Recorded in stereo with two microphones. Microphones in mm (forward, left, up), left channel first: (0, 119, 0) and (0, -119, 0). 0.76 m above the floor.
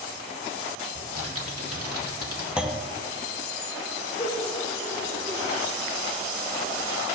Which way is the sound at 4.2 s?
20° left (ahead or behind).